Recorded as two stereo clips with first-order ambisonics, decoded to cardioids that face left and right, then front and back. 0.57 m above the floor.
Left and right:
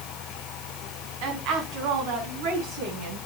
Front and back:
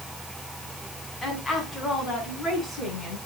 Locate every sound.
1.2 s a woman speaking: 75° right, 4.5 m; by 3.2 s 80° right, 5.5 m